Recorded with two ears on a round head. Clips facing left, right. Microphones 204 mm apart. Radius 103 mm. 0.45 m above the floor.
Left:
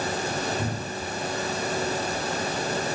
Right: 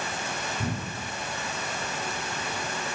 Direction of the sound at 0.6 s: 65° left (ahead or behind).